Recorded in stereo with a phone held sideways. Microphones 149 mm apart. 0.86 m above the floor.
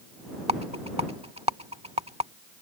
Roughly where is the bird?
I don't hear a bird.